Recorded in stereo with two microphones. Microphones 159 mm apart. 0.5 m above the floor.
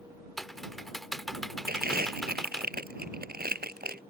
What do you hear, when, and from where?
0.4 s typing on a keyboard: centre (ahead or behind)
1.7 s crumpling: 80° right